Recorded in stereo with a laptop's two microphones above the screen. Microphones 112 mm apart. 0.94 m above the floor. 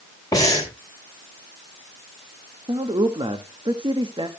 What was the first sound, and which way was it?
Breathing, 30° left (ahead or behind).